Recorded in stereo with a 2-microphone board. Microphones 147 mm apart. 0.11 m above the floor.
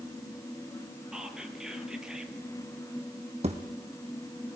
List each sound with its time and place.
1.1 s whispering: 5° right (ahead or behind), 2 m
3.4 s a thud: 50° right (ahead or behind), 2.0 m